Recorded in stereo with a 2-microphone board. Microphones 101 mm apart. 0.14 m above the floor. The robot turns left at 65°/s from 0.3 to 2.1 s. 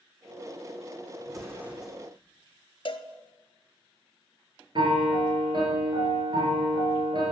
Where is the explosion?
140° right, 1.6 m; by 2.0 s 175° left, 1.6 m.